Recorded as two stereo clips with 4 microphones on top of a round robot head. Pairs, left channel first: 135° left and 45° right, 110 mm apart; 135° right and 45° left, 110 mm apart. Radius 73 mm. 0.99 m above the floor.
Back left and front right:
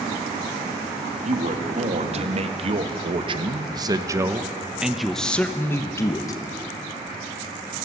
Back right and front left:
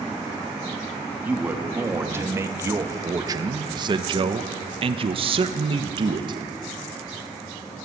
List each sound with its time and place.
1.2 s a man speaking: 30° right, 2.5 m; by 6.4 s 85° left, 1.5 m